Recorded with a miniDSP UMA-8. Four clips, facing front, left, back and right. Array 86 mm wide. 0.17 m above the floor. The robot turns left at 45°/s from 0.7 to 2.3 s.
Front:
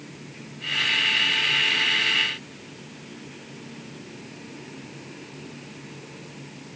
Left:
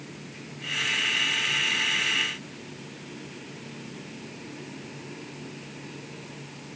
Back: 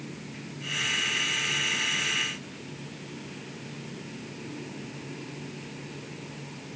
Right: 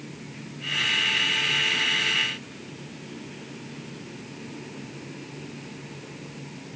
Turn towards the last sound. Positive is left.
No sound to turn to.